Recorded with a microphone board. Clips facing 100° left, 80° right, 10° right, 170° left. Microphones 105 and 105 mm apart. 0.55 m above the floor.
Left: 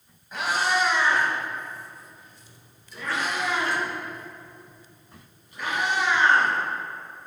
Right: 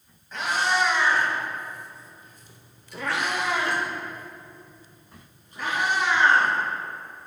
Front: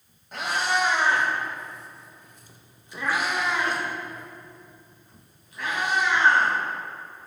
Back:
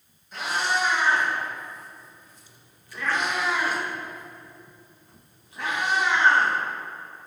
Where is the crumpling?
No crumpling in this recording.